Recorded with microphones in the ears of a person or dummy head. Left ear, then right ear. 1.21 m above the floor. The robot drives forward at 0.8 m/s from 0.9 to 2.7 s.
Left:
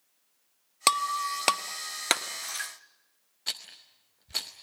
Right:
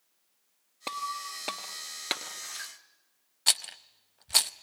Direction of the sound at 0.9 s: 55° left (ahead or behind).